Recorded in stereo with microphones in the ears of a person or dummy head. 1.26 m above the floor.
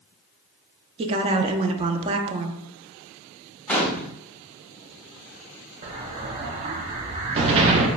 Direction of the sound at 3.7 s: 5° left (ahead or behind).